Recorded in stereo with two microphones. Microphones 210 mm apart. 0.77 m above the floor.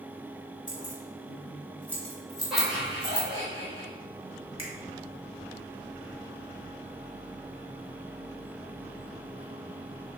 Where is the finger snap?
25° right (ahead or behind), 2 m.